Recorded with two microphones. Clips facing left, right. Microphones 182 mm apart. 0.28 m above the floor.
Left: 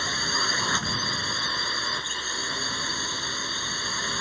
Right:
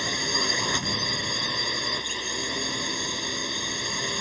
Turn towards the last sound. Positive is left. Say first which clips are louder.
# right 3 dB
turn(degrees=-15)  # may be behind; listen again after turning